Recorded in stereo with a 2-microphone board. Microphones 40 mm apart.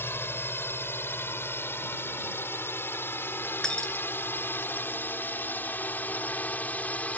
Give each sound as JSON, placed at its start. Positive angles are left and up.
{"t": 0.0, "sound": "a drone", "side_deg": 75}
{"t": 3.6, "sound": "breaking glass", "side_deg": 15}